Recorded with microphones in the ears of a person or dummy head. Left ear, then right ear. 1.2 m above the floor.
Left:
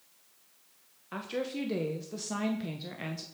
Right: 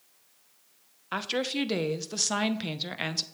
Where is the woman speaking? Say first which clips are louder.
Right 6 dB; 40° right (ahead or behind), 0.9 m.